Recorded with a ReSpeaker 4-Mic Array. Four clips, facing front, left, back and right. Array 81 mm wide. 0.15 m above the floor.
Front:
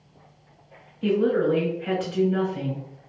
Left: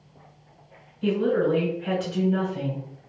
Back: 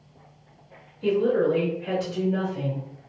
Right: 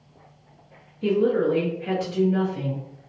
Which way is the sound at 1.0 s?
20° left.